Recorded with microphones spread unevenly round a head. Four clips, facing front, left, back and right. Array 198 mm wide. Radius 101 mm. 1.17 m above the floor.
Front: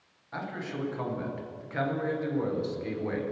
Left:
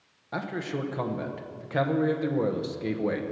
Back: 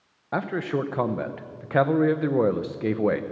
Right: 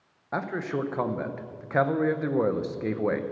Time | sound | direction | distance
0.3 | a man speaking | 175° right | 0.8 m